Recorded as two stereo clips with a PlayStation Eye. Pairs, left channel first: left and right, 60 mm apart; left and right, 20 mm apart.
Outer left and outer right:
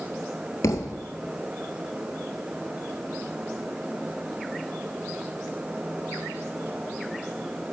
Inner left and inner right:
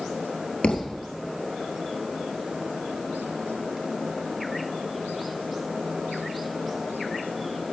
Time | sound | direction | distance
0.6 | a thud | 65° left (ahead or behind) | 0.9 m